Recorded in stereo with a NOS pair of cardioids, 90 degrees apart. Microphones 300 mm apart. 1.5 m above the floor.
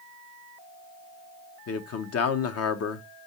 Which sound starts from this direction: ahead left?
A man speaking, at 1.7 s.